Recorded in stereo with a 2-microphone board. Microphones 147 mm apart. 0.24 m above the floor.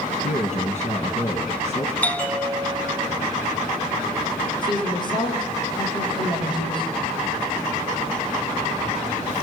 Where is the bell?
10° left (ahead or behind), 1.4 m.